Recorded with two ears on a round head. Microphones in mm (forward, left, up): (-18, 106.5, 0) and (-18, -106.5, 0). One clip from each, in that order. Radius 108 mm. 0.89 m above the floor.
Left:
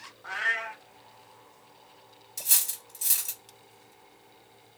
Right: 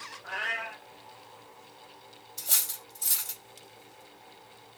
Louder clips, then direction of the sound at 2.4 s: Left 2 dB; 55° left (ahead or behind).